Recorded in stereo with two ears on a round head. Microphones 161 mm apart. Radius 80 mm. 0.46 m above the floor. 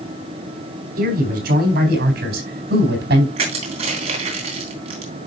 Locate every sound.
1.0 s a man speaking: 55° right (ahead or behind), 4 m; by 3.3 s 65° right (ahead or behind), 4 m
3.4 s crushing: 35° right (ahead or behind), 3.5 m